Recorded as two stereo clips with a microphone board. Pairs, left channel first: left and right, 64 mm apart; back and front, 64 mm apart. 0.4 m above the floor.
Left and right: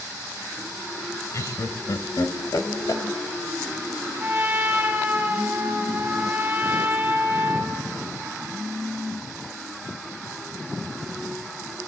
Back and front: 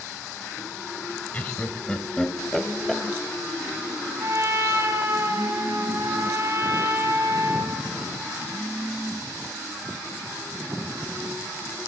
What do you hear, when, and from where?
1.3 s laughter: 120° left, 1.8 m; by 3.0 s 95° left, 2 m
4.2 s a trumpet: 30° right, 2.5 m